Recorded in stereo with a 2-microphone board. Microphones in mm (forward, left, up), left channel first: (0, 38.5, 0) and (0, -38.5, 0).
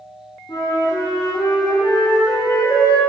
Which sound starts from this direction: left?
A flute, at 0.5 s.